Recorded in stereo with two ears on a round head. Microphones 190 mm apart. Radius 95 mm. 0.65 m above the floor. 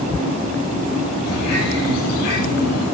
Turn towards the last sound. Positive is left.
turn(degrees=85)